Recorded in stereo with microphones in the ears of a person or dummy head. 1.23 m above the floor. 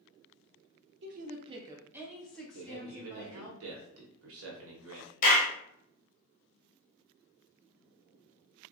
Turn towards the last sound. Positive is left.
turn(degrees=50)  # may be behind; listen again after turning